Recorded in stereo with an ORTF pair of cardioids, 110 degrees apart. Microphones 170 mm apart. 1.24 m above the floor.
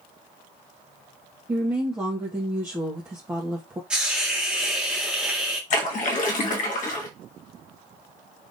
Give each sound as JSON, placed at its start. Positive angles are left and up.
{"t": 1.5, "sound": "a woman speaking", "azimuth_deg": -15, "distance_m": 1.5}
{"t": 3.9, "sound": "a hiss", "azimuth_deg": -5, "distance_m": 1.6}
{"t": 5.7, "sound": "a splash", "azimuth_deg": 50, "distance_m": 1.6}